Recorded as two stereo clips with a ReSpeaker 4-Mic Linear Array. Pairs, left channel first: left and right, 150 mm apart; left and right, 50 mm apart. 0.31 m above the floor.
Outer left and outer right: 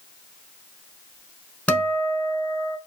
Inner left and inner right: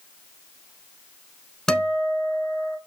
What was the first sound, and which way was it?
A guitar, 10° left (ahead or behind).